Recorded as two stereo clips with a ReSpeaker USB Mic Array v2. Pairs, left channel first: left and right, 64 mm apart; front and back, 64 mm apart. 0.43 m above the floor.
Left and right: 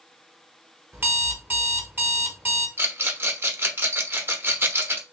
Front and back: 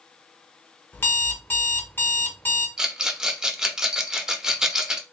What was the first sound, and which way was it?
An alarm clock, 45° right.